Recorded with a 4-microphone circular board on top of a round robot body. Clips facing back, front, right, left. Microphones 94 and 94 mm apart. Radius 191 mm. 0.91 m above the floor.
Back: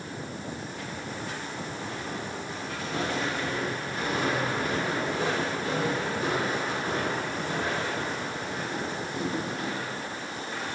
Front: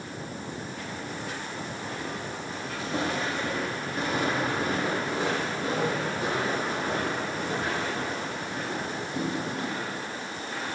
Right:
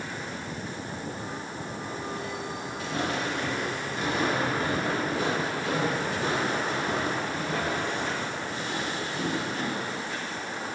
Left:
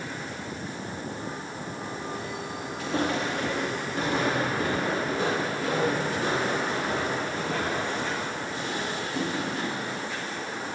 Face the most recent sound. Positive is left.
turn(degrees=30)